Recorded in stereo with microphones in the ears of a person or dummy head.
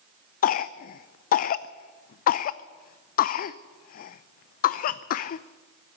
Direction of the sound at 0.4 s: 55° left (ahead or behind).